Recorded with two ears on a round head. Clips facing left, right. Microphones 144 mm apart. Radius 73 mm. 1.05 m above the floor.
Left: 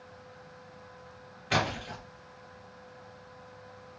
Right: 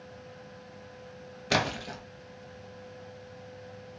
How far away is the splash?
About 0.7 m.